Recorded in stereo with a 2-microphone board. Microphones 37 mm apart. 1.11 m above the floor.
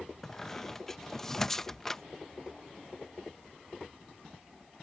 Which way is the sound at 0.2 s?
10° left (ahead or behind).